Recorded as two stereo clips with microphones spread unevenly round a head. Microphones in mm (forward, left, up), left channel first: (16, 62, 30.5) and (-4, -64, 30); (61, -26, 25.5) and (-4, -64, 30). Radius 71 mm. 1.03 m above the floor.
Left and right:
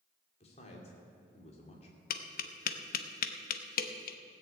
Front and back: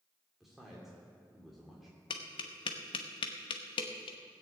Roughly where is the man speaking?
Behind left.